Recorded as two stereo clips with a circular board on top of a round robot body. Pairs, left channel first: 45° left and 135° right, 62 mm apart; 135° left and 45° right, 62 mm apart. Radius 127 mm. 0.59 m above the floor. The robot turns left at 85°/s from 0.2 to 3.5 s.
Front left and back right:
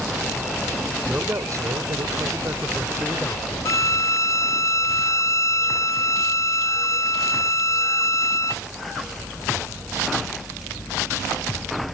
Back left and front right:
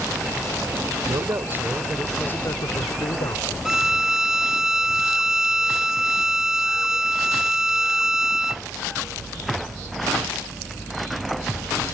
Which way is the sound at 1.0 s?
60° right.